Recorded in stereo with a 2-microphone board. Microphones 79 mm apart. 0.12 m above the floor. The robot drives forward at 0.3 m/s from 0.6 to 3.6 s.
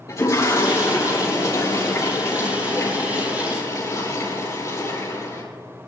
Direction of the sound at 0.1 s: 45° left (ahead or behind).